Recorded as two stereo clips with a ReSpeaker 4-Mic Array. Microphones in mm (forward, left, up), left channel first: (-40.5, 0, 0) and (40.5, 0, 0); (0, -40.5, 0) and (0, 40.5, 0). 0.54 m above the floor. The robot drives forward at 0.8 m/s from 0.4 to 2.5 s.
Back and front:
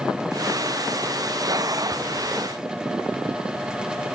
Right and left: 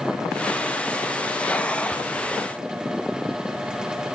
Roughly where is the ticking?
No ticking in this recording.